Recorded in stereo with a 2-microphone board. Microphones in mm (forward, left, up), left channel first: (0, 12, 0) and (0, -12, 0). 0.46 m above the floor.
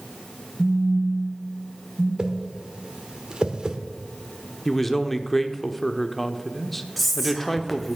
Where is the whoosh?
35° right (ahead or behind), 1.2 m.